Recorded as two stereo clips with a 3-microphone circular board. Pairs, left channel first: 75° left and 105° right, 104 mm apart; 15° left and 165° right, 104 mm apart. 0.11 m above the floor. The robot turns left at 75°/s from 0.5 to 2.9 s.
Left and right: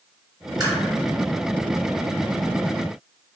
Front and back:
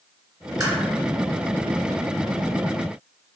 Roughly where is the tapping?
Behind right.